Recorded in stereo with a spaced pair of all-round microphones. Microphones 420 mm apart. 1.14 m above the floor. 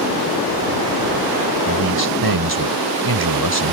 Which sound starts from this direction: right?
A man speaking, at 1.7 s.